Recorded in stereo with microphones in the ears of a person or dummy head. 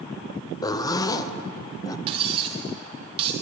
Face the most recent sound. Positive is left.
turn(degrees=-25)  # may be behind; listen again after turning